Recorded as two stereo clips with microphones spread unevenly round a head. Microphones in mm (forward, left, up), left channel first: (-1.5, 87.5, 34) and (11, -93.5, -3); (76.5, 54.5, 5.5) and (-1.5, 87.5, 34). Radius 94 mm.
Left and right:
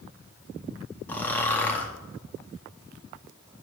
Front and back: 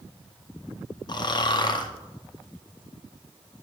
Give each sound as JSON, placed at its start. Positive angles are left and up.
{"t": 1.1, "sound": "snoring", "azimuth_deg": 15, "distance_m": 0.7}